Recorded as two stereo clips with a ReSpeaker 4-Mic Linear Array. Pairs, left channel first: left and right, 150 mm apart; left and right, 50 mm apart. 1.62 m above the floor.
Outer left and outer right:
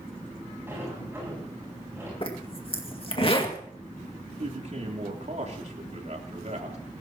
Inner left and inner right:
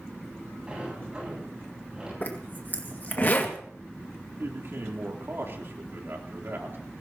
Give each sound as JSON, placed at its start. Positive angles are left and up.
{"t": 0.7, "sound": "a sliding door", "side_deg": -15, "distance_m": 10.0}
{"t": 2.2, "sound": "a zipper", "side_deg": 40, "distance_m": 2.0}
{"t": 4.4, "sound": "a man speaking", "side_deg": -55, "distance_m": 3.5}